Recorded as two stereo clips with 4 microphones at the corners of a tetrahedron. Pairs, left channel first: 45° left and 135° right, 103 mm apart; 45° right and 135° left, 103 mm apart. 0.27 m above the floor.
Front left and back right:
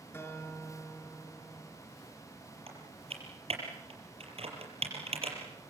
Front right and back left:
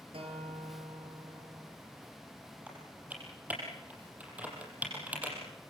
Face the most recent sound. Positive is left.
turn(degrees=-150)